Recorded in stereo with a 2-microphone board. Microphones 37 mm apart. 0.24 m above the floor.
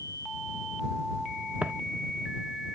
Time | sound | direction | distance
1.6 | footsteps | 45° right (ahead or behind) | ?